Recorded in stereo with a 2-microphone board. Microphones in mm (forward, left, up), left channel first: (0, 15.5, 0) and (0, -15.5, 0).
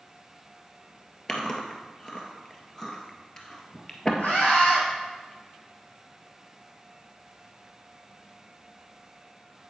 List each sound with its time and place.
1.3 s chewing: 25° left (ahead or behind), 1.5 m
4.2 s a scream: 75° left (ahead or behind), 4.5 m